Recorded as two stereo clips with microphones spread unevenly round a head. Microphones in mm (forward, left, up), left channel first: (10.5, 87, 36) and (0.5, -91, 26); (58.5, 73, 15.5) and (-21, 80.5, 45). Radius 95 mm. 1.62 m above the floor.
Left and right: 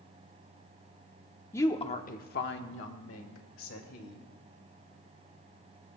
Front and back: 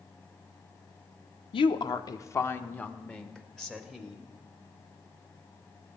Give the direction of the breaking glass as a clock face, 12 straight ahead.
No breaking glass in this recording.